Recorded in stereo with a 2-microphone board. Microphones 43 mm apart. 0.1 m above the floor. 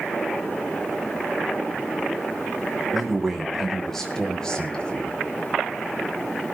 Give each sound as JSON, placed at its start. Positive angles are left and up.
{"t": 2.9, "sound": "a man speaking", "side_deg": -5, "distance_m": 5.5}